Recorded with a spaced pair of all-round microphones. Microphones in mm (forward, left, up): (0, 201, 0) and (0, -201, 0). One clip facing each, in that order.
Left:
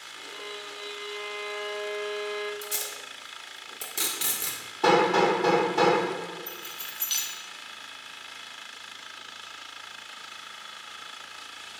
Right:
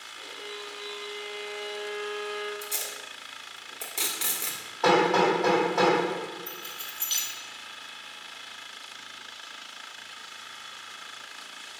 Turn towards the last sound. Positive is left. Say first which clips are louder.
# even
turn(degrees=20)  # may be behind; listen again after turning